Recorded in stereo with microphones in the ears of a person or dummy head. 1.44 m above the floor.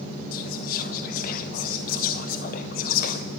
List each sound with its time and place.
0.3 s whispering: 55° left (ahead or behind), 0.7 m